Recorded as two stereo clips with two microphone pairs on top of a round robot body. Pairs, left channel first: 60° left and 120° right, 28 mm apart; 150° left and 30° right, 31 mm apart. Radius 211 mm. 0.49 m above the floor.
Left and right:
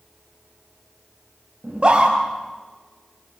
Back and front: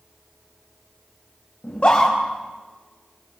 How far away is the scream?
About 4.5 m.